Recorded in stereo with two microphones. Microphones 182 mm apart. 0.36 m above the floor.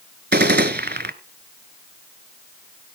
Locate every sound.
0.3 s a gunshot: 65° right (ahead or behind), 0.8 m